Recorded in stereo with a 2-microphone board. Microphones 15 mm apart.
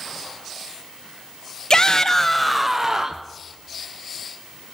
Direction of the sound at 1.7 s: 45° left (ahead or behind).